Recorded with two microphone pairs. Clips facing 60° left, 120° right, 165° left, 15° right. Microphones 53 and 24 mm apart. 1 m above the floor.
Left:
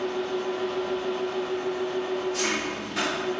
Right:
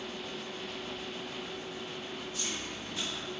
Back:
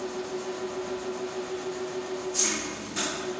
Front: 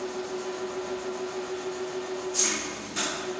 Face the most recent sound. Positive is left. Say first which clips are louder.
# left 13 dB, even
turn(degrees=75)